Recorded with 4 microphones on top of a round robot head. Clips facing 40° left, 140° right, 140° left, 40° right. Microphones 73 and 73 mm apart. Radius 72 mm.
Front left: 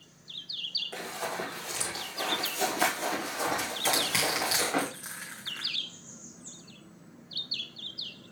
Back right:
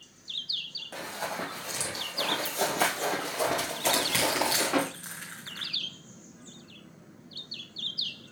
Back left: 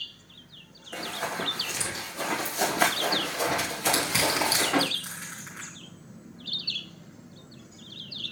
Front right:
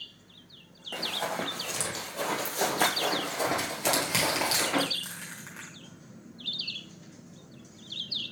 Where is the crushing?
40° right, 1.2 m.